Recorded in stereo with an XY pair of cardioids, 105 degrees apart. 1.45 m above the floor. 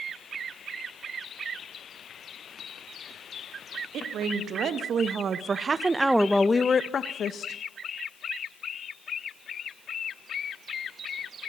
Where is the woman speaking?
70° right, 3 m; by 7.6 s 65° left, 1.9 m.